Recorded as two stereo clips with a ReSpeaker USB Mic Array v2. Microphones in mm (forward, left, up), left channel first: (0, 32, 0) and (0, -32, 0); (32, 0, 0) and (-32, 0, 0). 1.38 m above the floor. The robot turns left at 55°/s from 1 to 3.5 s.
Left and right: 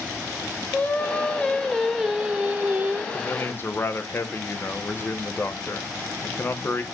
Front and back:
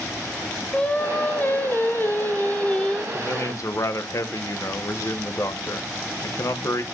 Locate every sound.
0.7 s singing: 50° left, 1.2 m; by 3.0 s 65° right, 1.2 m
3.1 s a man speaking: 55° left, 1.3 m; by 6.8 s 35° left, 1.3 m